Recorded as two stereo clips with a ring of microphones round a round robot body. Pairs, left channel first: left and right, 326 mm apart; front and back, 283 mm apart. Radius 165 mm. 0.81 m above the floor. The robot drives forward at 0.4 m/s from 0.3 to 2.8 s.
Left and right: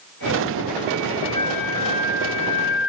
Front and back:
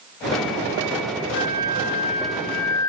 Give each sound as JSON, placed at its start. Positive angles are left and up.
{"t": 1.3, "sound": "a flute", "azimuth_deg": 55, "distance_m": 1.4}